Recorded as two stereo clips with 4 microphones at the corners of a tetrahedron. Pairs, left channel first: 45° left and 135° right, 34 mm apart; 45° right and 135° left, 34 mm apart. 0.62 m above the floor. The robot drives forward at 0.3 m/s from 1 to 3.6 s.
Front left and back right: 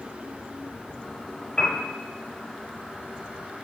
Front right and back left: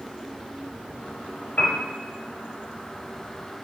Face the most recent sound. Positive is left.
turn(degrees=-55)